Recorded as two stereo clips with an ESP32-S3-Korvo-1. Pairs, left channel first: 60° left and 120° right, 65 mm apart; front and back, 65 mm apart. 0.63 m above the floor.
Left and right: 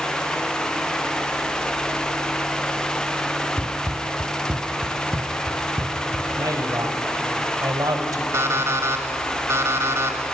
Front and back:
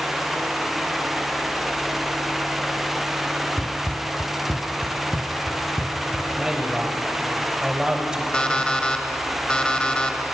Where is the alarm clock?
75° right, 1.7 m.